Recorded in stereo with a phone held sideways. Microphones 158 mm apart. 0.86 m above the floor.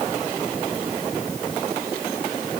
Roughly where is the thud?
I don't hear a thud.